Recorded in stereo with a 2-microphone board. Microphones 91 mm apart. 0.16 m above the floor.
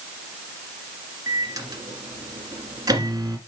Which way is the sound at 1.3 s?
45° right (ahead or behind).